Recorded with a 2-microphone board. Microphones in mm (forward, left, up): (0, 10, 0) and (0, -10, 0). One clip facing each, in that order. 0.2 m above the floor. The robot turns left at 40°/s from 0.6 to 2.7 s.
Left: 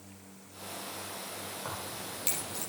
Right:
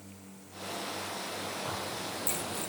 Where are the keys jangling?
20° left (ahead or behind), 6 m; by 2.7 s 60° left (ahead or behind), 6 m.